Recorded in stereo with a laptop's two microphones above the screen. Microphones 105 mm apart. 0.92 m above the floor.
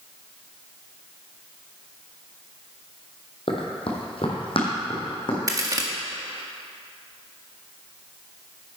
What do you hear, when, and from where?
3.5 s running footsteps: 55° left (ahead or behind), 1.6 m; by 5.4 s 50° left (ahead or behind), 3 m
5.5 s a crack: 35° right (ahead or behind), 1.6 m